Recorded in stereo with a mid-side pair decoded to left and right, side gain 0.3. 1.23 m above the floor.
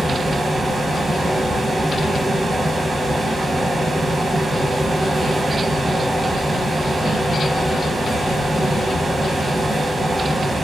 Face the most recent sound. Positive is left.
turn(degrees=-60)